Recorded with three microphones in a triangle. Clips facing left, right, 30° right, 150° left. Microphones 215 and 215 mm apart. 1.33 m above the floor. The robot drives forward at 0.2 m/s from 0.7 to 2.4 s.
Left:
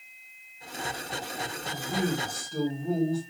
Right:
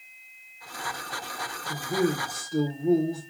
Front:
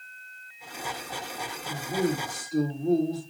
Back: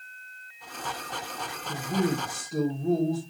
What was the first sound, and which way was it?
A man speaking, 170° right.